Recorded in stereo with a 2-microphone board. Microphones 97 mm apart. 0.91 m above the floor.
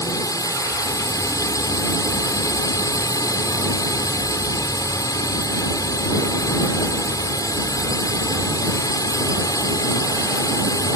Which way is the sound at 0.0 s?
40° left (ahead or behind).